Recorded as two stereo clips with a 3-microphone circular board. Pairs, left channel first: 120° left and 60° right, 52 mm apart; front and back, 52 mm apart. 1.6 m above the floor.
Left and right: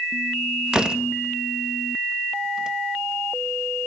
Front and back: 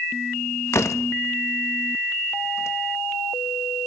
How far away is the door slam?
About 1.5 m.